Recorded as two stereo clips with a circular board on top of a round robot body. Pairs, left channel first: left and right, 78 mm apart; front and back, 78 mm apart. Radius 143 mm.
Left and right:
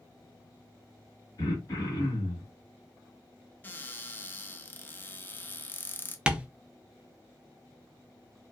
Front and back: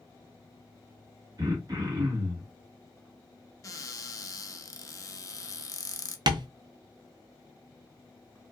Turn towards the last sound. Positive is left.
turn(degrees=-165)